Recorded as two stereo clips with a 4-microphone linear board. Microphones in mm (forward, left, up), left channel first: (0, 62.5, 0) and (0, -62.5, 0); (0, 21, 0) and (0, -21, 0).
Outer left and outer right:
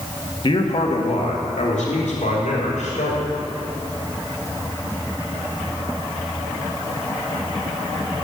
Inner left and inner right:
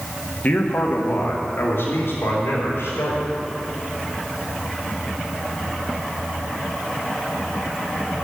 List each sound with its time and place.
0.4 s a man speaking: 45° left (ahead or behind), 1.8 m; by 3.3 s 80° left, 4.5 m